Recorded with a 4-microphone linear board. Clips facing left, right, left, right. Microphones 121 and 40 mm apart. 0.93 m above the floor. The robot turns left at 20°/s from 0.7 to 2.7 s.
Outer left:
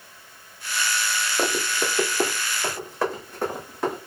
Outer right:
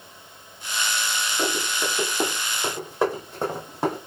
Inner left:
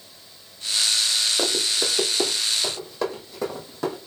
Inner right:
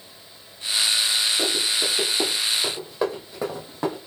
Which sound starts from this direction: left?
Running footsteps, at 1.4 s.